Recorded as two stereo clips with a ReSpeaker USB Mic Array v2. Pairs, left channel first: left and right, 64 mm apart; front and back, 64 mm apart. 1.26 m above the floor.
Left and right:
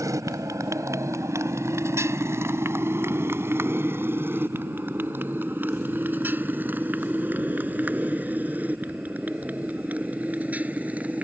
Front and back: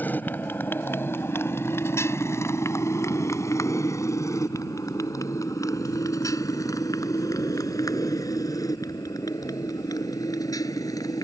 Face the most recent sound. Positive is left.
turn(degrees=-20)